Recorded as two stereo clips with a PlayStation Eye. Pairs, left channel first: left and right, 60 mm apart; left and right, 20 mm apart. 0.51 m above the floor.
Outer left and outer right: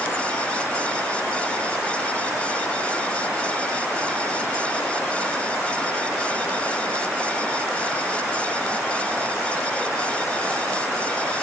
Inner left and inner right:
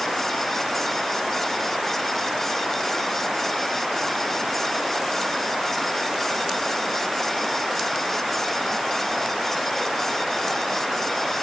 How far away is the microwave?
No microwave in this recording.